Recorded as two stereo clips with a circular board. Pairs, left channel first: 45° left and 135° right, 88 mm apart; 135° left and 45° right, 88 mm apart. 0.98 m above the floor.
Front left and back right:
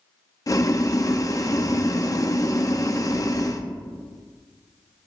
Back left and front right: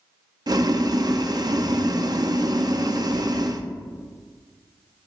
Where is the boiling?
5° right, 0.7 m.